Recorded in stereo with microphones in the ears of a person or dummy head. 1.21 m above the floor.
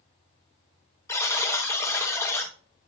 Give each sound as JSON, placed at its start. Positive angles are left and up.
{"t": 1.1, "sound": "a buzzer", "side_deg": 15, "distance_m": 1.2}